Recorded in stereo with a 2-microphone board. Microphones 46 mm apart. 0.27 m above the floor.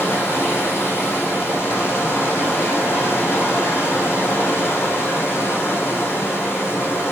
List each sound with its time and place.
0.0 s running water: 55° left (ahead or behind), 3 m